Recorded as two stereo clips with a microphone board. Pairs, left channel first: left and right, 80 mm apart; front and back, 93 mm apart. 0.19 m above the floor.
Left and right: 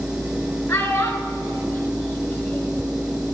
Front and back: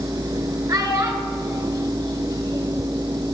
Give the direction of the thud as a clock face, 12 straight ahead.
I don't hear a thud.